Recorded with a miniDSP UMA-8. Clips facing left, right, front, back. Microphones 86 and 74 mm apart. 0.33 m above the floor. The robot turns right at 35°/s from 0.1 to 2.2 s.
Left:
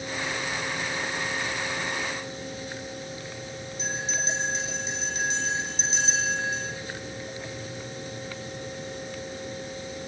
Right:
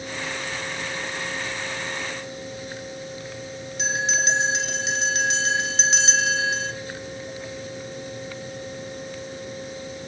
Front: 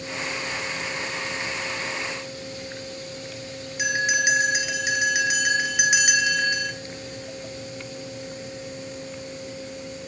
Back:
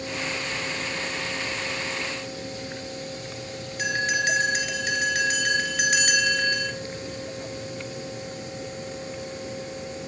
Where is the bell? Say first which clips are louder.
Right 7 dB, front 2 dB; 75° right, 1.1 m.